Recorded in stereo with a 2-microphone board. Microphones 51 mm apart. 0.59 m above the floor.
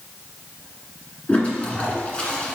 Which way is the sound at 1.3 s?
25° left (ahead or behind).